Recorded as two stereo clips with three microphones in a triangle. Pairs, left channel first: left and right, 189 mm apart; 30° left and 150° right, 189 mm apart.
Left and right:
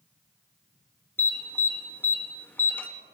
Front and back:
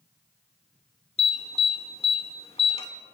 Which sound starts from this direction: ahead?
An alarm, at 1.2 s.